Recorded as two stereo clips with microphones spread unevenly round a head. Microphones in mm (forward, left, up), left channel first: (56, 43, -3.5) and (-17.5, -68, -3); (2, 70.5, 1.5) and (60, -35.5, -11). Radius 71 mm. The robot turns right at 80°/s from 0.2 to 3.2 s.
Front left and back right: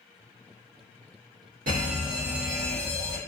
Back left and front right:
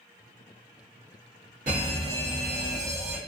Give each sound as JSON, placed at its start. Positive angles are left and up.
{"t": 1.7, "sound": "an alarm", "azimuth_deg": -100, "distance_m": 1.4}